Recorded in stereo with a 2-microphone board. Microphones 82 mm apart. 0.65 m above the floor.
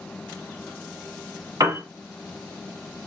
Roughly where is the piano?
Right.